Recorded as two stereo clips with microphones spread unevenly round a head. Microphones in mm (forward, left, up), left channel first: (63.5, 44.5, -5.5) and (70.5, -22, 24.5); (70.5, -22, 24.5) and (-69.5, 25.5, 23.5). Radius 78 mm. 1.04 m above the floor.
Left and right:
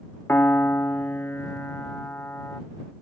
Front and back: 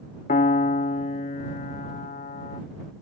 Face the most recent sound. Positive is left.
turn(degrees=25)